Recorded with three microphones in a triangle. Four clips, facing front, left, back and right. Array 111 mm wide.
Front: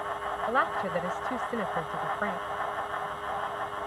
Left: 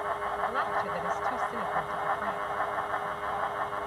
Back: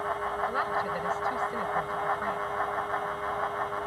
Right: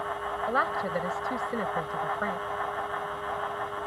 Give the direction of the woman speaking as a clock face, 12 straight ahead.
1 o'clock.